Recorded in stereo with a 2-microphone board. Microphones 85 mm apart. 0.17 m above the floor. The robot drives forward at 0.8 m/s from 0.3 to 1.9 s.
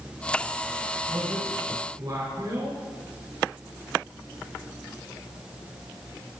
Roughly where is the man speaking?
Right.